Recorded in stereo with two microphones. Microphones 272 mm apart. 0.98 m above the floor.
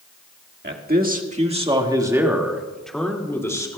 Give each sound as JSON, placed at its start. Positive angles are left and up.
{"t": 0.6, "sound": "a man speaking", "side_deg": -40, "distance_m": 1.7}